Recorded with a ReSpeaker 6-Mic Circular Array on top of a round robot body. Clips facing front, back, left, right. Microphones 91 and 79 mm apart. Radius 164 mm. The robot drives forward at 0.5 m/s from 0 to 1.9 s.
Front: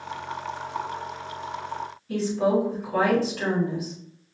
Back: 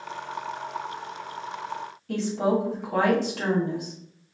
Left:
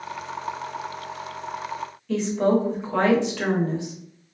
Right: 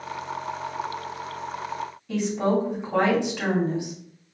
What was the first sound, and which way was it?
A woman speaking, 165° right.